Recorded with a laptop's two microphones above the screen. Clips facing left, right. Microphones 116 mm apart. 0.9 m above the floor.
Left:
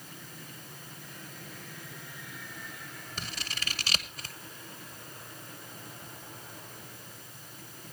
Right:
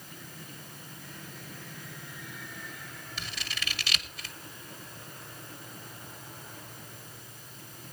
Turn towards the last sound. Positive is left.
turn(degrees=40)  # may be behind; listen again after turning